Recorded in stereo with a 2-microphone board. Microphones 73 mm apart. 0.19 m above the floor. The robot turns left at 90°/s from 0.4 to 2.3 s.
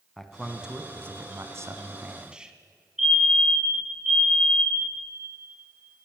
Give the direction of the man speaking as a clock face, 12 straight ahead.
12 o'clock.